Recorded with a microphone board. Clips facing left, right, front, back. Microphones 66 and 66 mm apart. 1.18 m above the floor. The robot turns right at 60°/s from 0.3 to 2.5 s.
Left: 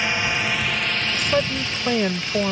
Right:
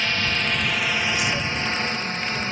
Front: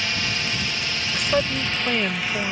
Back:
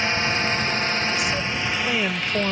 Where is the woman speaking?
40° left; by 2.5 s 120° left.